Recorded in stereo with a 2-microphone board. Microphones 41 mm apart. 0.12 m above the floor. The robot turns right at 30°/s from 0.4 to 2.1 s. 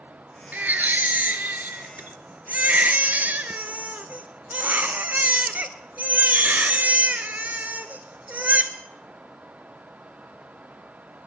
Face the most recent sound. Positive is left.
turn(degrees=-65)